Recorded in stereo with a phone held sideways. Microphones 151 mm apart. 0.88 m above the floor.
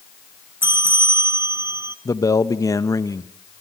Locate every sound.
0.6 s a bell: 15° right (ahead or behind), 0.7 m
2.0 s a man speaking: 25° left (ahead or behind), 1.0 m